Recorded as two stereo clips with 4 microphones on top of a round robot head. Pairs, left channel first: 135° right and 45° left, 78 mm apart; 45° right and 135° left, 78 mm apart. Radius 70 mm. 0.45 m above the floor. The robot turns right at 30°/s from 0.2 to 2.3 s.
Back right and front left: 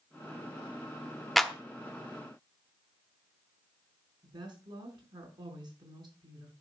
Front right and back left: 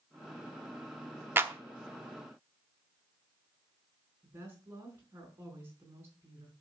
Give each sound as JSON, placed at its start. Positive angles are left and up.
{"t": 1.4, "sound": "a clap", "azimuth_deg": 135, "distance_m": 1.1}
{"t": 4.2, "sound": "a woman speaking", "azimuth_deg": 75, "distance_m": 5.0}